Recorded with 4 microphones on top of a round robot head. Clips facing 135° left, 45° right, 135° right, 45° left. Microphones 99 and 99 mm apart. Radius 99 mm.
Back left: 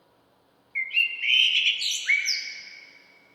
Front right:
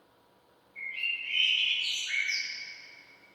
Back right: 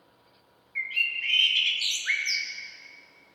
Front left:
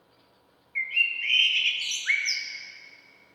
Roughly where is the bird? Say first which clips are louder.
Back left 8 dB, front left 2 dB; behind left.